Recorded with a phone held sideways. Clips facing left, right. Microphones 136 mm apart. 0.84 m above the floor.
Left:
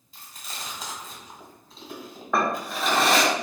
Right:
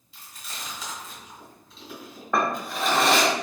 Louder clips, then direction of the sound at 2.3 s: Even; centre (ahead or behind).